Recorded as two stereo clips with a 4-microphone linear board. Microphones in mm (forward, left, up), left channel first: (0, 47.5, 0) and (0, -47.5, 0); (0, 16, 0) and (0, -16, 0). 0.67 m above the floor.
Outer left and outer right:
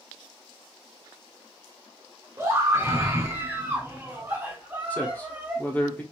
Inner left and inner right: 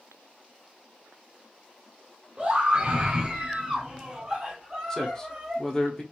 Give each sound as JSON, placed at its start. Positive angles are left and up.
{"t": 2.4, "sound": "a scream", "side_deg": -35, "distance_m": 2.0}
{"t": 4.9, "sound": "a man speaking", "side_deg": 20, "distance_m": 1.1}